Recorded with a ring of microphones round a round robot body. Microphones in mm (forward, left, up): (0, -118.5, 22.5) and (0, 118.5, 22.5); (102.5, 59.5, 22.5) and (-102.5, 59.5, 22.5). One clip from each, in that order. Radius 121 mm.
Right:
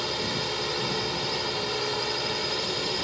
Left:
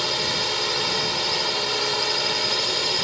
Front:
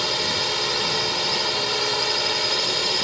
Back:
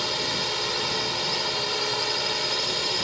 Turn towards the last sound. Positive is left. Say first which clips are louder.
# left 6 dB, front 4 dB
turn(degrees=70)